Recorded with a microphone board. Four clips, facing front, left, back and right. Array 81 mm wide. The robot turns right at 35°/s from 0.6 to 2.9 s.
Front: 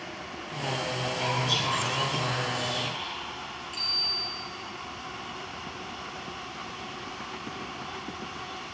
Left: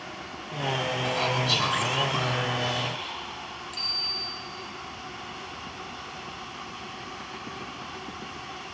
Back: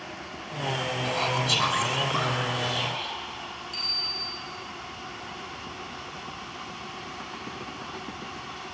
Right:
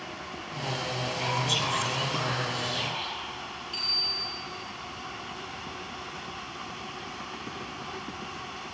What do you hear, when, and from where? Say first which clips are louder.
1.1 s whispering: left 2 dB, back 2 dB; 135° left, 3.5 m; by 3.2 s 160° right, 3.5 m
3.7 s a bicycle bell: even, even; 85° right, 4 m